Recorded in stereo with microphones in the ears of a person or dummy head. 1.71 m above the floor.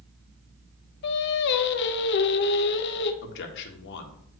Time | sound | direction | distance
1.0 | singing | 60° left (ahead or behind) | 0.8 m
3.2 | a man speaking | 65° left (ahead or behind) | 1.3 m